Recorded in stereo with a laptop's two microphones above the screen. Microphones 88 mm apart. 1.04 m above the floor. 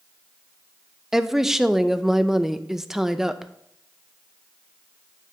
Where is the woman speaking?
5° right (ahead or behind), 0.7 m.